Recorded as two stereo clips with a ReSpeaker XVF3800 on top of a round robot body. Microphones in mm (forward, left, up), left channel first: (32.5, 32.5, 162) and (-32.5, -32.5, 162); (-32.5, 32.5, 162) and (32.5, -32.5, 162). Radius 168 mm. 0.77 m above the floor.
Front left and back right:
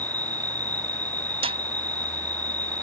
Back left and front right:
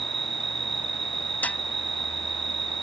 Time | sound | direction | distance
0.0 | an insect | 30° right | ?
1.4 | a snare drum | 150° right | ?